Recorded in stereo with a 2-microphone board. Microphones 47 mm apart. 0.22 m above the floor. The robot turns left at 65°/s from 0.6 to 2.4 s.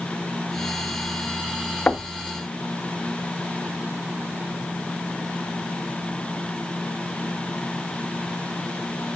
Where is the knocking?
30° left (ahead or behind), 0.7 m; by 2.1 s 25° left (ahead or behind), 0.7 m.